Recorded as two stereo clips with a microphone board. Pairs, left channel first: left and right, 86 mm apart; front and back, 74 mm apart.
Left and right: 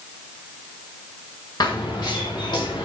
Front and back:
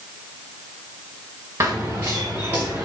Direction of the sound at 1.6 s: 130° left.